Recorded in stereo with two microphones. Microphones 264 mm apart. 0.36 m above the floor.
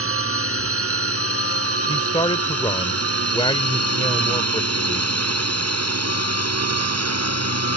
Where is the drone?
55° right (ahead or behind); by 7.8 s 70° right (ahead or behind).